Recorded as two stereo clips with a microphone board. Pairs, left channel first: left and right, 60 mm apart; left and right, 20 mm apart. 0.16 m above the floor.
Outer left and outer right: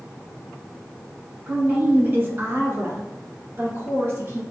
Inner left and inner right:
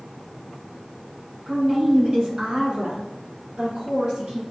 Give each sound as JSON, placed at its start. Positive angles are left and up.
{"t": 1.5, "sound": "a woman speaking", "side_deg": -30, "distance_m": 1.2}